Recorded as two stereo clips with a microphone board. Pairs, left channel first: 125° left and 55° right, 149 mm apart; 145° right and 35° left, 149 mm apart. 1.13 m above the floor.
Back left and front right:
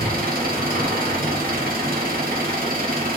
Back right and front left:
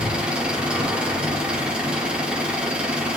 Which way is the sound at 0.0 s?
50° right.